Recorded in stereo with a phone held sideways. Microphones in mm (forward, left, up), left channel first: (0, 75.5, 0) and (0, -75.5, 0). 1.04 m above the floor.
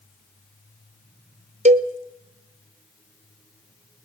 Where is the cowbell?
50° right (ahead or behind), 0.9 m.